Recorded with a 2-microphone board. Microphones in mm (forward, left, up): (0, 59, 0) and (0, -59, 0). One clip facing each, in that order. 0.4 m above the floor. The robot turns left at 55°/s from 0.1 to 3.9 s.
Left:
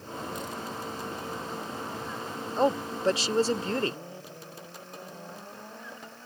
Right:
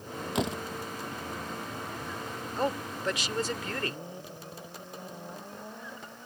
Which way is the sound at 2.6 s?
20° left (ahead or behind).